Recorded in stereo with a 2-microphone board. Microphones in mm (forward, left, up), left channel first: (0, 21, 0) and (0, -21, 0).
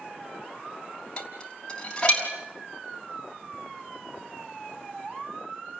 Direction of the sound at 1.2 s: 25° left (ahead or behind).